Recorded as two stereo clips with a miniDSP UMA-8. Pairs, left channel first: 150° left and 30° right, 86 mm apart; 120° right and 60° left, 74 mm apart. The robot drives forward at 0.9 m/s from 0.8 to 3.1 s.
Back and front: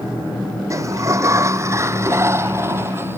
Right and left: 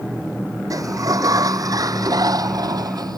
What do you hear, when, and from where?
0.7 s a sliding door: 25° left; by 3.2 s 35° left